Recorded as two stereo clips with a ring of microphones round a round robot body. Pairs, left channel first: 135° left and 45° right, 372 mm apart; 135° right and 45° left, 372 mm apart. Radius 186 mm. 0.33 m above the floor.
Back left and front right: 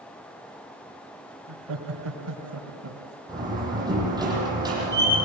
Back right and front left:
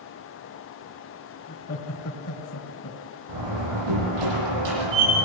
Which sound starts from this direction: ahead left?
A door slam, at 3.3 s.